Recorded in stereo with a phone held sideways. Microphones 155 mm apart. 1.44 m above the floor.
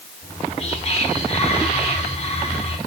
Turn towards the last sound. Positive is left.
turn(degrees=45)  # may be behind; listen again after turning